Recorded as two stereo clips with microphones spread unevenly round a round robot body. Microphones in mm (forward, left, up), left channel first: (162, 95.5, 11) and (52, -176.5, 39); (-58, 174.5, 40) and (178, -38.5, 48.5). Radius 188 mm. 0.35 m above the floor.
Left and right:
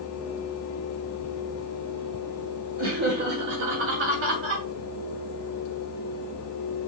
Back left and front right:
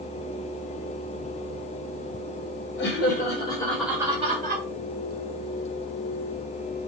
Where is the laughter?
175° right, 2 m; by 4.6 s 85° right, 1.7 m.